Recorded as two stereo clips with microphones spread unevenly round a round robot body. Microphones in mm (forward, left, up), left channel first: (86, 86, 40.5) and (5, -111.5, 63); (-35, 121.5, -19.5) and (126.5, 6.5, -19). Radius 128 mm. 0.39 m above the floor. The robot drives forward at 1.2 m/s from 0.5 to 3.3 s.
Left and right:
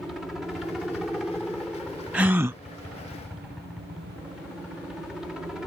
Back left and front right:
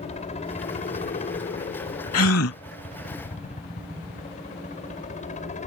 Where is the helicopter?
150° left.